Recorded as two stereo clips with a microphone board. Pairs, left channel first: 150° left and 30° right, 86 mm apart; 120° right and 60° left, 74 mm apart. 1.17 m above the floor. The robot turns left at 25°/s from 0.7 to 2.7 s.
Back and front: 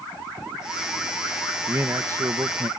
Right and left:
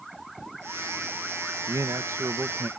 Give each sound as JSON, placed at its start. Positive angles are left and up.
{"t": 1.7, "sound": "a man speaking", "azimuth_deg": 30}